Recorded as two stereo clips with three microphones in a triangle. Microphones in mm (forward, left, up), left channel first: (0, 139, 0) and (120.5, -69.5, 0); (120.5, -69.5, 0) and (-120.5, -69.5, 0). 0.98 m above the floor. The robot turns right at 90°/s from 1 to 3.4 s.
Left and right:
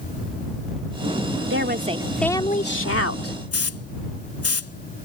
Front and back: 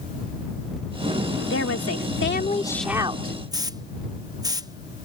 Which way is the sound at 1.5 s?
30° right.